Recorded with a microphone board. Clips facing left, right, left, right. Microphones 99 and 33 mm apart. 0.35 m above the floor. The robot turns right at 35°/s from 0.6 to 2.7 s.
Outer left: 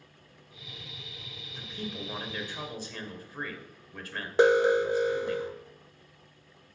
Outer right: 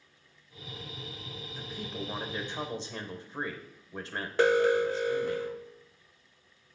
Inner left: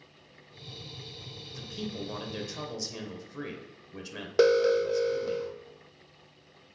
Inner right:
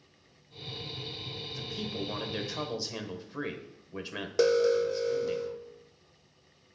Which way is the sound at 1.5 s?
Straight behind.